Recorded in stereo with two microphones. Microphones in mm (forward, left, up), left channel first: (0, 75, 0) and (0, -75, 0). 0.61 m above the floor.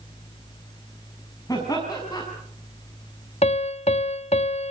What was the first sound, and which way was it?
Laughter, 25° left (ahead or behind).